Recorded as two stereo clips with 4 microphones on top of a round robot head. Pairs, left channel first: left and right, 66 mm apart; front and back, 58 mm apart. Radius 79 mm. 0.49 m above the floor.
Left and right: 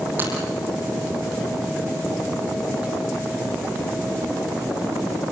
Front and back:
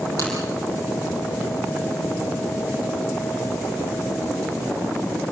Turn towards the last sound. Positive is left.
turn(degrees=-155)